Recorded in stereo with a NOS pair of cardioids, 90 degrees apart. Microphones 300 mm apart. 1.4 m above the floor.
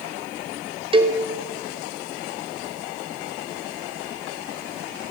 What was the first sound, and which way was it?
A cowbell, 20° right.